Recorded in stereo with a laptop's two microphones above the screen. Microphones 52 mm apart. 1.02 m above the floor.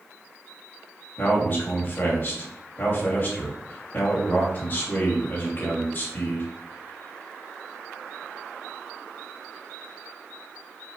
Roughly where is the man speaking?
Left.